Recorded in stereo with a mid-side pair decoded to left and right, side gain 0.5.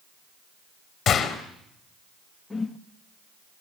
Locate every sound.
1.1 s a gunshot: 40° left, 4.5 m
2.5 s a whoosh: 15° left, 1.6 m